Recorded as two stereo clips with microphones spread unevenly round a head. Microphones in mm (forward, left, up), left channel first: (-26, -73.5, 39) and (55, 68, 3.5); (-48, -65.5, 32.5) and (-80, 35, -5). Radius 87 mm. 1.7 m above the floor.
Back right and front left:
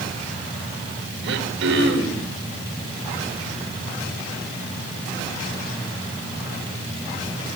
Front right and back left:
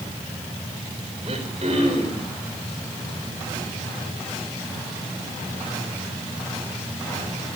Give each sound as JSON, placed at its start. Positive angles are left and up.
{"t": 1.2, "sound": "throat clearing", "azimuth_deg": 45, "distance_m": 3.5}